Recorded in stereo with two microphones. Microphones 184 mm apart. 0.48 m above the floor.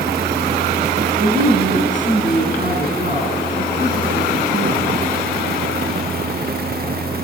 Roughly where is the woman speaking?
Right.